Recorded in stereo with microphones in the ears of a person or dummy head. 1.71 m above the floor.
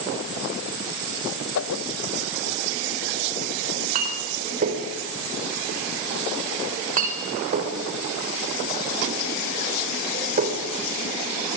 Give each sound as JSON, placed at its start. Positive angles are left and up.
{"t": 1.6, "sound": "a whoosh", "side_deg": 65, "distance_m": 1.4}
{"t": 3.6, "sound": "a clink", "side_deg": -45, "distance_m": 3.5}